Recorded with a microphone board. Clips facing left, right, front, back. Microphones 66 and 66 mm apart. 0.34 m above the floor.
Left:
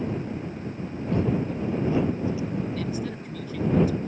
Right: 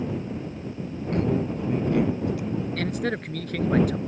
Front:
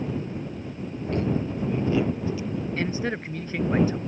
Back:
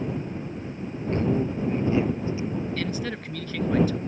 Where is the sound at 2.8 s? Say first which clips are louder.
Right 3 dB, front 2 dB; 65° right.